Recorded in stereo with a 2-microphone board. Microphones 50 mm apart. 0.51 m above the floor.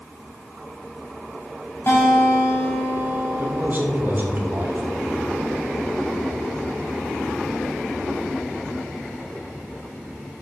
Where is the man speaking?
45° right (ahead or behind), 1.8 m.